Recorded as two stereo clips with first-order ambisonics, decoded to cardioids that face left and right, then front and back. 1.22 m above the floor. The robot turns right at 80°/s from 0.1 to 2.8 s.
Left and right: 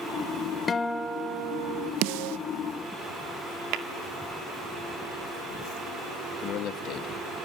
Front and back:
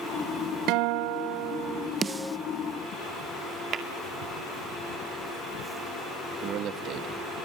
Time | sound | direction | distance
0.7 | a guitar | 160° left | 0.9 m
2.0 | a snare drum | 110° right | 0.6 m
3.7 | tapping | 120° right | 2 m
6.4 | a man speaking | 135° left | 2.0 m